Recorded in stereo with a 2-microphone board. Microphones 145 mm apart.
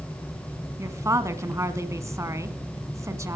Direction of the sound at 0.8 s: 20° right (ahead or behind).